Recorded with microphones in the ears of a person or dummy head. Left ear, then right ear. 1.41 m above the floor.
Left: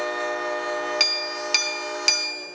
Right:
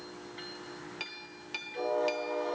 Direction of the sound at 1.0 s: 60° left (ahead or behind).